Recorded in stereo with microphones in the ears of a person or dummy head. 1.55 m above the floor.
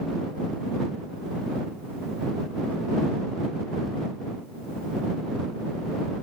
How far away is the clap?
I don't hear a clap.